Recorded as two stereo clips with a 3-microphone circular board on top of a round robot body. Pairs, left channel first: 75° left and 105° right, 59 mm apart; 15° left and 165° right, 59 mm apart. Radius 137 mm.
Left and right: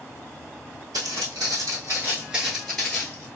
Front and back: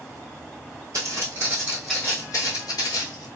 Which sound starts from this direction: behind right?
Footsteps, at 0.9 s.